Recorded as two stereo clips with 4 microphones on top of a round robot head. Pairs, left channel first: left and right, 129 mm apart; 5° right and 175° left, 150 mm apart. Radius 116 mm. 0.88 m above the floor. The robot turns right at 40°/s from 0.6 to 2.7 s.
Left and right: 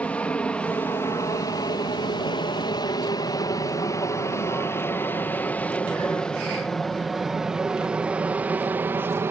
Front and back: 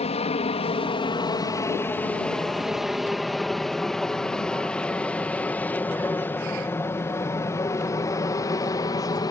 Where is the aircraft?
15° left; by 9.3 s 40° right.